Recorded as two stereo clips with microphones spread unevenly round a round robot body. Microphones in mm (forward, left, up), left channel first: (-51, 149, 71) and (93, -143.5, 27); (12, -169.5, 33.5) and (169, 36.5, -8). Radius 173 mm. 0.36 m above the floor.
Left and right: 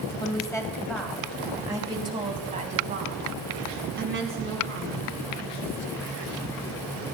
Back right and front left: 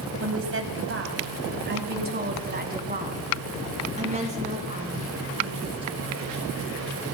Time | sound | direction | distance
0.2 | a woman speaking | 35° left | 2.5 m